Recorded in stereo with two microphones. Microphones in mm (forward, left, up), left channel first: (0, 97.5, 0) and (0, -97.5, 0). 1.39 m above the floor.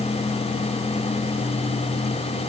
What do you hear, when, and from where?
Only background noise.